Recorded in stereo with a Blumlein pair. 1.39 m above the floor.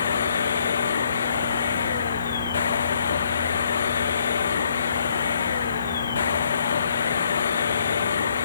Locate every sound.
0.0 s a machine running: 70° left